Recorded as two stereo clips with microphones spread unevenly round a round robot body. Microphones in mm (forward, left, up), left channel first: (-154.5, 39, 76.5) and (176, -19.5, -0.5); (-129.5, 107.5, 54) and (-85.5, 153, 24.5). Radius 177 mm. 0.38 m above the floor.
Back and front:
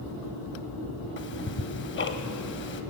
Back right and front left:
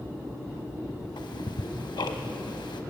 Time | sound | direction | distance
1.2 | ticking | 130° right | 1.3 m